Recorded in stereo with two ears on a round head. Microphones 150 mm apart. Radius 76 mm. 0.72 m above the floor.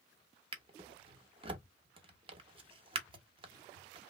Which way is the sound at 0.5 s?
30° right (ahead or behind).